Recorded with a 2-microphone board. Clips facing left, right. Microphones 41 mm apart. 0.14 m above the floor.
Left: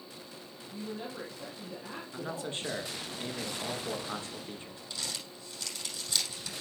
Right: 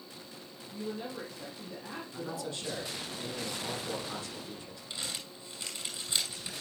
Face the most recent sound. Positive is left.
turn(degrees=-25)  # may be behind; listen again after turning